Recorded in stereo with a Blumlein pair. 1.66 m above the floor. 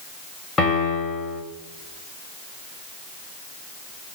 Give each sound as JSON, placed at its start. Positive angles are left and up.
{"t": 0.6, "sound": "a piano", "azimuth_deg": 15, "distance_m": 2.5}